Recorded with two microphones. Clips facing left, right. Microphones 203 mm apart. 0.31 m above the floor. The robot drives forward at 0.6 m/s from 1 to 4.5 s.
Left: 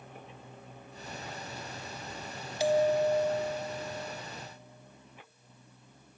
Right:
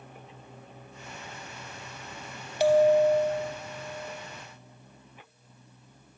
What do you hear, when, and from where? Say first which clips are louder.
2.6 s a bell: right 6 dB; 70° right (ahead or behind), 0.5 m; by 4.2 s 30° right (ahead or behind), 0.9 m